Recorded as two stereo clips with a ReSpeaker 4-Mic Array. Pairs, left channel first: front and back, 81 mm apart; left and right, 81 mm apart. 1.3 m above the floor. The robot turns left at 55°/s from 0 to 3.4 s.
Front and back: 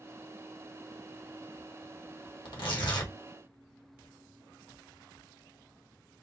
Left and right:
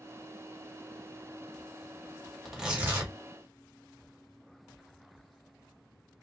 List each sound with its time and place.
2.5 s tearing paper: straight ahead, 1.7 m; by 3.1 s 40° right, 1.7 m